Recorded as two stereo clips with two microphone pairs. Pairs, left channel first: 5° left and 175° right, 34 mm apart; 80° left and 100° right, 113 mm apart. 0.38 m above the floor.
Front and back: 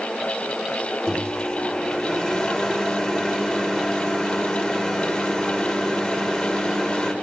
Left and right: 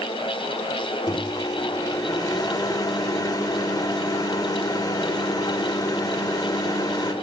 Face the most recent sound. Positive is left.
turn(degrees=60)